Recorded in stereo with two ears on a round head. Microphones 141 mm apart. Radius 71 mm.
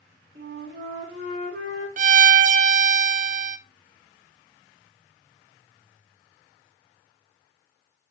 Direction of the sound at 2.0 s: 50° right (ahead or behind).